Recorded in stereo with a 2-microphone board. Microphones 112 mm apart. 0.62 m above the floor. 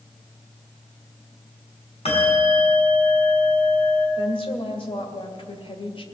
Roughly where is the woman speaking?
Left.